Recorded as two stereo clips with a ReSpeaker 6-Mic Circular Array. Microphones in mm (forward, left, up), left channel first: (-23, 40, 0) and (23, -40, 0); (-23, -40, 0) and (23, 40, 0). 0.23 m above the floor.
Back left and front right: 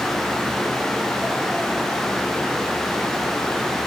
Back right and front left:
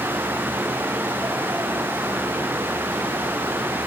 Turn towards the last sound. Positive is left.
No sound to turn to.